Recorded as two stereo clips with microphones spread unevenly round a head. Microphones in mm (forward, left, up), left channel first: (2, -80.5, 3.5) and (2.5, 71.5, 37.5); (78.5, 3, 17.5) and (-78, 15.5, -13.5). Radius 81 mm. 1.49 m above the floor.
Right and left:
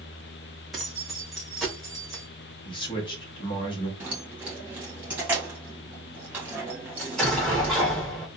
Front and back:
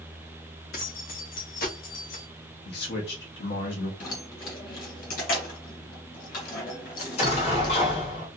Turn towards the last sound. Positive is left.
turn(degrees=5)